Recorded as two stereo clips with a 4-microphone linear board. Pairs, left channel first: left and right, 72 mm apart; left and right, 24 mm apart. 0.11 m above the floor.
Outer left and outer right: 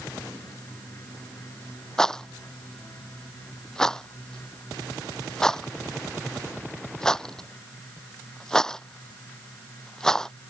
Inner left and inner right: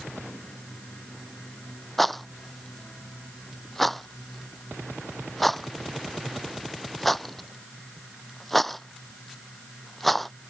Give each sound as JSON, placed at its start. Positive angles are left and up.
{"t": 2.0, "sound": "a rattle", "side_deg": 10}